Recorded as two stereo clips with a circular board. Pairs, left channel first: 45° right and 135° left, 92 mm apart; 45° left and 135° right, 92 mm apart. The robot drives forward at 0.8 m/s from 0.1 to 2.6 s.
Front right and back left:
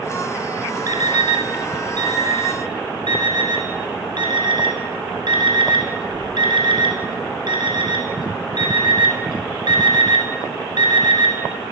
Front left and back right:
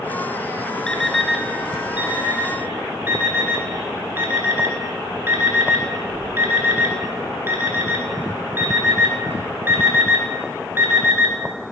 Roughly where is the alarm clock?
Behind left.